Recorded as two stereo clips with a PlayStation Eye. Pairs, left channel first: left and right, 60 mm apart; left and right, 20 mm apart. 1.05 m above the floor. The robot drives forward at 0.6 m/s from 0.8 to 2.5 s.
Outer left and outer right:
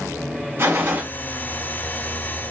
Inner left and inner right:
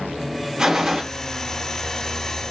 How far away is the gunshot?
About 0.9 m.